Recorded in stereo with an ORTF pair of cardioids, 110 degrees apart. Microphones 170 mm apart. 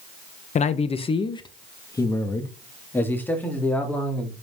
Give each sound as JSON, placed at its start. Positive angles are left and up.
{"t": 0.6, "sound": "a man speaking", "azimuth_deg": 45, "distance_m": 1.3}